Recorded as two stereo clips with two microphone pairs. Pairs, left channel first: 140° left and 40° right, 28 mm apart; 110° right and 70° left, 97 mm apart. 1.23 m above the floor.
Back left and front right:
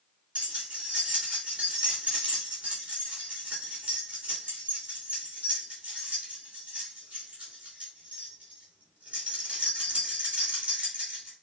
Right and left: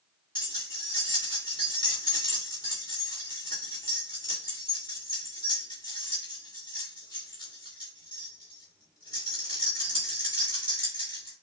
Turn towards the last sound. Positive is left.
turn(degrees=-75)